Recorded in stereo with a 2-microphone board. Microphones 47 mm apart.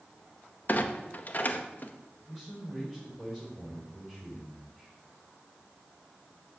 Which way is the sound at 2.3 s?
15° left (ahead or behind).